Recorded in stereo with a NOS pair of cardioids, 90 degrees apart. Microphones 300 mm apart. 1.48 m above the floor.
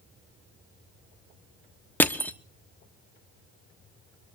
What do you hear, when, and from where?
2.0 s crushing: 5° left, 1.2 m